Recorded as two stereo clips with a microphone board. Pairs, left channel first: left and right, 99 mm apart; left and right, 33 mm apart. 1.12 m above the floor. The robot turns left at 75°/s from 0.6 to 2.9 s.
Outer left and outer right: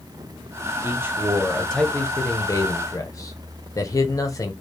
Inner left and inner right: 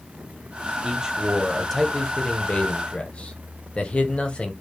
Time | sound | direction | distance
0.8 | a man speaking | 125° right | 0.7 m